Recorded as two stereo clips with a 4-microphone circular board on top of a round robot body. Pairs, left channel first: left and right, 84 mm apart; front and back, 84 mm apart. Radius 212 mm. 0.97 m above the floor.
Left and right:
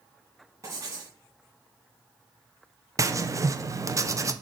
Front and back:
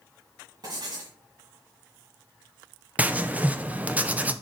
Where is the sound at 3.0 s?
115° right, 0.9 m.